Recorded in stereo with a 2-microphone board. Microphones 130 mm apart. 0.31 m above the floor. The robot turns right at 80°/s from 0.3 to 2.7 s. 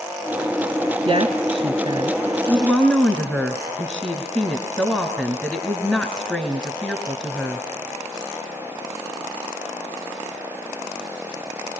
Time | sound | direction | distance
1.1 | a woman speaking | 115° right | 1.4 m